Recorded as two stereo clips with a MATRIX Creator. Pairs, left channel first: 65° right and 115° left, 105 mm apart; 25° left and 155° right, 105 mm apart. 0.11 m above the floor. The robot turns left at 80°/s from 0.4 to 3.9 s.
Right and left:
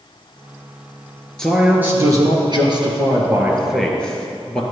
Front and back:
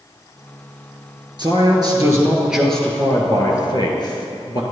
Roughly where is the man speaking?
Behind right.